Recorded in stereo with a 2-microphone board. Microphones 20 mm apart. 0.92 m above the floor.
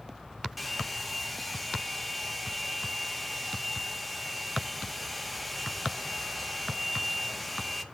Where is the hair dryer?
5° right (ahead or behind), 0.9 m.